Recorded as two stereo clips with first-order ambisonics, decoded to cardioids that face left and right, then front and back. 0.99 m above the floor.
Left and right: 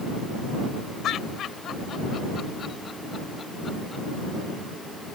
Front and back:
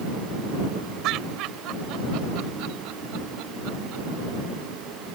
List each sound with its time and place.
1.0 s laughter: 140° left; by 4.0 s 170° left